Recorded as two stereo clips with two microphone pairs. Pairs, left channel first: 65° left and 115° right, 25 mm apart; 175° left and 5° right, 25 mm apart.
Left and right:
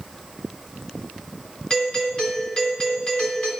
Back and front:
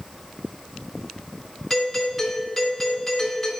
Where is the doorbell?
90° left, 2.5 m.